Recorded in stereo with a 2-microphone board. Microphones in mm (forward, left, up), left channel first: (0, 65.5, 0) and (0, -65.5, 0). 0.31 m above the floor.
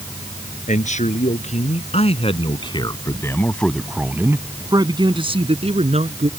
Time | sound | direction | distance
0.7 | a man speaking | 65° left (ahead or behind) | ?